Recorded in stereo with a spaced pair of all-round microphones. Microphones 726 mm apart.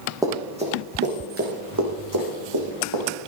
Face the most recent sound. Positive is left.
turn(degrees=-35)  # may be behind; listen again after turning